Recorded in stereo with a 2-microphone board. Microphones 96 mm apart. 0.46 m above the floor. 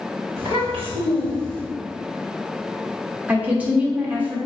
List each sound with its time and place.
0.4 s a child speaking: 80° right, 2.0 m; by 1.6 s 65° right (ahead or behind), 2.5 m
3.3 s a woman speaking: 15° right (ahead or behind), 0.9 m